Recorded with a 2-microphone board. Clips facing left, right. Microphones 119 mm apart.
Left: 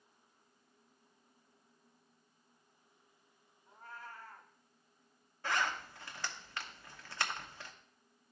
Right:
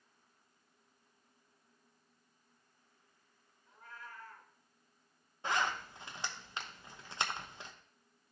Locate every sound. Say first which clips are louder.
3.7 s a cat meowing: left 2 dB; 35° left (ahead or behind), 1.1 m
5.4 s a zipper: right 1 dB; 20° right (ahead or behind), 0.8 m